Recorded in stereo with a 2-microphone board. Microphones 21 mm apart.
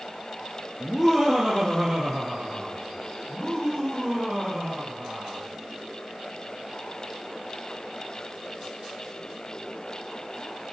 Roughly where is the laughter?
Centre.